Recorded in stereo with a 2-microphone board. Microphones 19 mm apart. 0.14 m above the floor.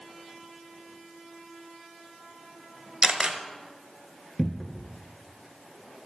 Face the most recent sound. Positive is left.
turn(degrees=20)  # may be behind; listen again after turning